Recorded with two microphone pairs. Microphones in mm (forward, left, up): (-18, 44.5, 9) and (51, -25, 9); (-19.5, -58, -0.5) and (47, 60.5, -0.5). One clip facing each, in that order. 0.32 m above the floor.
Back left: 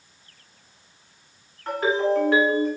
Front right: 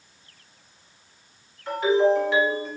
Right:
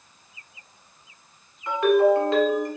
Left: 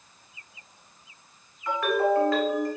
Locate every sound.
1.7 s a ringtone: 175° left, 1.8 m